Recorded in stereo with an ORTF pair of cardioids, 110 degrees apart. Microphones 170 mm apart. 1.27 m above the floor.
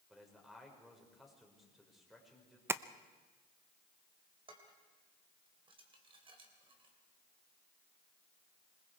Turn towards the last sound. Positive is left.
turn(degrees=-30)